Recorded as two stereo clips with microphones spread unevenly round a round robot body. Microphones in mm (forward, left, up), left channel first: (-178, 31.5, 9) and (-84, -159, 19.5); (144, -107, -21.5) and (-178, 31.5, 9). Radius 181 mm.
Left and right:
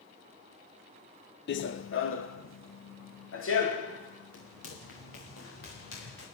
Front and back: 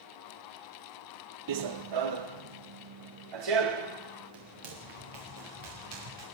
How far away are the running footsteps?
About 0.9 m.